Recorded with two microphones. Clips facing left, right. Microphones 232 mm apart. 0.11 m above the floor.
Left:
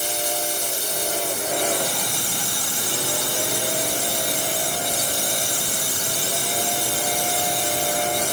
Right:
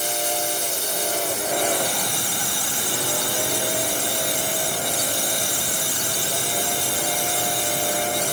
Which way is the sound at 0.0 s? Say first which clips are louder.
Right 1 dB; 45° right (ahead or behind).